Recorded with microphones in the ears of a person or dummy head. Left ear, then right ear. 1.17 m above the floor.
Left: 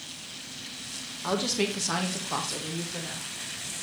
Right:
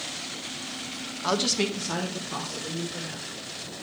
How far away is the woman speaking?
About 0.6 m.